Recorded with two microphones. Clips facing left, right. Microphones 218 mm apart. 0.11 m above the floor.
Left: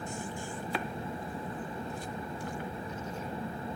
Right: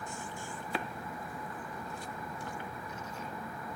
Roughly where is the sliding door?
No sliding door in this recording.